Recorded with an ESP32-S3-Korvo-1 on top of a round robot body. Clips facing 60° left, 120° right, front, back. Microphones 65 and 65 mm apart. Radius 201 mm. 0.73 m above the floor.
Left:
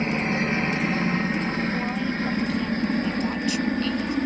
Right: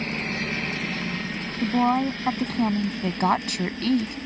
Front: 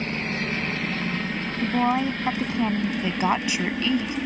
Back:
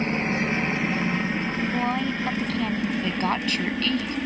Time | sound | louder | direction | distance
0.0 | a helicopter | left 5 dB, back 3 dB | 120° left | ?
1.6 | a woman speaking | right 5 dB, front 5 dB | 70° right | ?
3.0 | a woman speaking | right 2 dB, front 2 dB | 80° right | ?